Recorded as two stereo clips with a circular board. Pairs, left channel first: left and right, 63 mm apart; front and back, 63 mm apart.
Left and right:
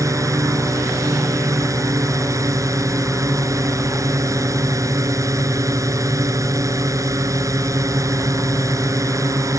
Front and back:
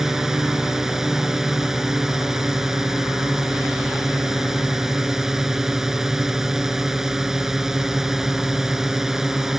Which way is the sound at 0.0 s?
100° right.